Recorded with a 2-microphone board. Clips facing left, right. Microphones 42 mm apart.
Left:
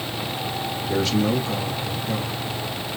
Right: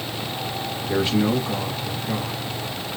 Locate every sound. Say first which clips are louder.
0.9 s a man speaking: right 1 dB; 20° right (ahead or behind), 1.1 m